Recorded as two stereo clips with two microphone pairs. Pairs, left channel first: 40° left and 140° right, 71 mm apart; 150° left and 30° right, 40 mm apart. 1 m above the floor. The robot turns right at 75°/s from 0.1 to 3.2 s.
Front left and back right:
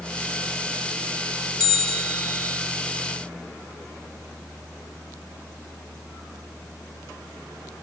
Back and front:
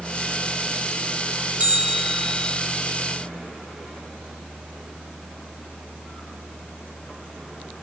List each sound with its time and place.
1.6 s a bell: 25° left, 2 m; by 2.6 s 95° left, 2 m